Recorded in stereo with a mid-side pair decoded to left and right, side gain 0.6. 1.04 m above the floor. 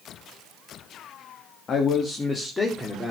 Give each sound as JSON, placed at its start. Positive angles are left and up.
{"t": 1.7, "sound": "a man speaking", "azimuth_deg": 45, "distance_m": 1.8}